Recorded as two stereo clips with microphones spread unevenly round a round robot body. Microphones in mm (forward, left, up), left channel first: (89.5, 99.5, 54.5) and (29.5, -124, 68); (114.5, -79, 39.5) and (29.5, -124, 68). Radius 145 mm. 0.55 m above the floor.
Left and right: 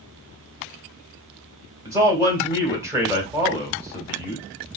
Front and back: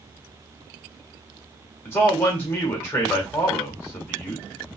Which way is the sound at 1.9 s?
25° right.